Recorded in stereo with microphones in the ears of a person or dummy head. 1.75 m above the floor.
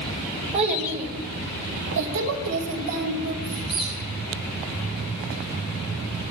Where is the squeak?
Centre (ahead or behind), 1.3 m.